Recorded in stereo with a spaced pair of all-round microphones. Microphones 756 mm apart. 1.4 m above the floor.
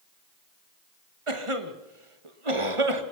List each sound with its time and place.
1.3 s a cough: 40° right (ahead or behind), 1.7 m